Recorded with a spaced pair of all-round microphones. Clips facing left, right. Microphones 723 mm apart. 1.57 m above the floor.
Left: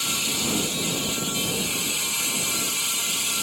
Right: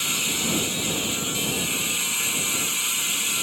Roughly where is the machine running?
Left.